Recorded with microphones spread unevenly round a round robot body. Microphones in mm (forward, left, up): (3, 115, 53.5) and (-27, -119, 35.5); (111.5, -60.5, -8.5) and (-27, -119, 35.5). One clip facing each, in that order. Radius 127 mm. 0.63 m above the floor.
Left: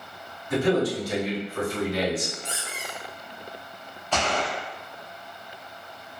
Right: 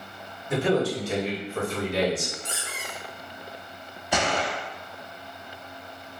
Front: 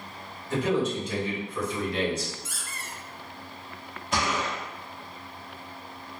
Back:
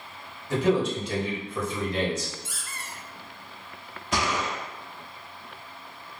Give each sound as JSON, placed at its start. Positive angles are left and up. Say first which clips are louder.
{"t": 0.5, "sound": "a man speaking", "louder": "left 1 dB, back 2 dB", "azimuth_deg": -150, "distance_m": 1.7}
{"t": 2.5, "sound": "a squeak", "louder": "left 1 dB, even", "azimuth_deg": -90, "distance_m": 0.8}
{"t": 4.1, "sound": "a gunshot", "louder": "right 1 dB, back 1 dB", "azimuth_deg": -170, "distance_m": 0.7}